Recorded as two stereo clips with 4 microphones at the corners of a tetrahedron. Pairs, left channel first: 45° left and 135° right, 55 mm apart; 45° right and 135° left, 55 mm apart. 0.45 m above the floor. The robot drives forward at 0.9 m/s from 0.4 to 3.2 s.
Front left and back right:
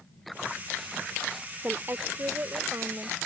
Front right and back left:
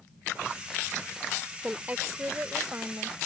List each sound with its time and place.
1.6 s a woman speaking: 165° right; by 3.2 s 175° right